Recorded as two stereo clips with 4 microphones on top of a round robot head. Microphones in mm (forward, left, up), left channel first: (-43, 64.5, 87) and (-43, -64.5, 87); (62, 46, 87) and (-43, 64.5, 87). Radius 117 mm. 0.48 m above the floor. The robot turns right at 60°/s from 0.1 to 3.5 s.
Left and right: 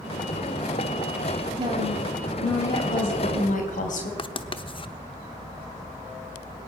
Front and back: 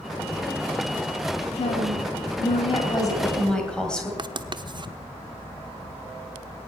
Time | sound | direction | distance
1.6 | a woman speaking | 45° right | 4 m
4.2 | writing | 130° left | 0.9 m